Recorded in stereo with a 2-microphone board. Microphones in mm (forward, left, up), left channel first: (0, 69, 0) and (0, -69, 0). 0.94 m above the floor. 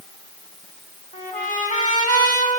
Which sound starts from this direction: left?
A trumpet, at 1.1 s.